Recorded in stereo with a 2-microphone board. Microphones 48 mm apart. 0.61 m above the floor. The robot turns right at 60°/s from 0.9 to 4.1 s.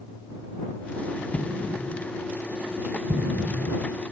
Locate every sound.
1.3 s an explosion: 70° left (ahead or behind); by 3.9 s 65° right (ahead or behind)